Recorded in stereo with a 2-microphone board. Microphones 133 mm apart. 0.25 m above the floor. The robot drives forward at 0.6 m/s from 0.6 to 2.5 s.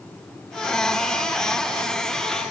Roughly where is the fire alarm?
No fire alarm in this recording.